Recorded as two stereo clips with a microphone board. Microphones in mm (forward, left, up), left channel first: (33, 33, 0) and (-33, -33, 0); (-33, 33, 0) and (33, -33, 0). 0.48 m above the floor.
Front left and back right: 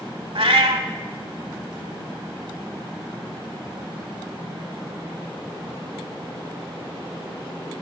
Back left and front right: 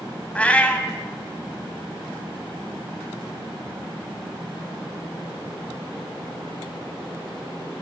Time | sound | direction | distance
0.3 | a cat meowing | 150° right | 0.7 m